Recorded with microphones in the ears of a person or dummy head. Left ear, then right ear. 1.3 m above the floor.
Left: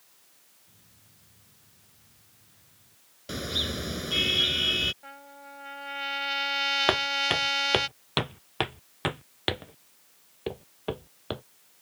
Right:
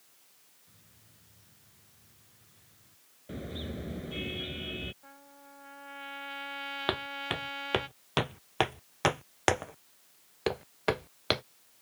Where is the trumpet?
45° left (ahead or behind).